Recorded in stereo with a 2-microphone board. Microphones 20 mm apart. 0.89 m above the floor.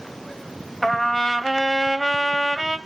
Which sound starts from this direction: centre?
A trumpet, at 0.8 s.